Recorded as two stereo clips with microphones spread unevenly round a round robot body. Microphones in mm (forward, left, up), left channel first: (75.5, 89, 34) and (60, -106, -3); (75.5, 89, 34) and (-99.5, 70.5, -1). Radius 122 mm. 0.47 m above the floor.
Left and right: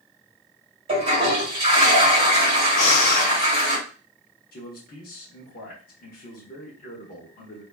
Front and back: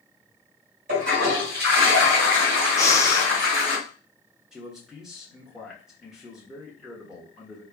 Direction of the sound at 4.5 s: 115° left.